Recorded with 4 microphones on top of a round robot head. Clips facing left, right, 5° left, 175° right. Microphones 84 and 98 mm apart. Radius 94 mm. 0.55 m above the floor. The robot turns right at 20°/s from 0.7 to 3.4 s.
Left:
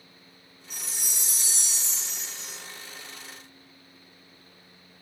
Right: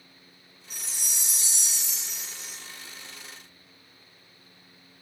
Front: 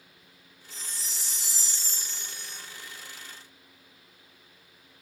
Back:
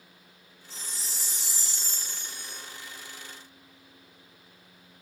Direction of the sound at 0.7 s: 40° right.